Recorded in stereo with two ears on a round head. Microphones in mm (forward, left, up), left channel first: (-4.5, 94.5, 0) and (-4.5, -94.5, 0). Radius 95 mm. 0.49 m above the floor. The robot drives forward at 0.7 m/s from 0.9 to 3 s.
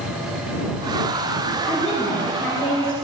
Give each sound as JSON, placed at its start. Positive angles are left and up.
{"t": 1.6, "sound": "a woman speaking", "side_deg": 5, "distance_m": 6.5}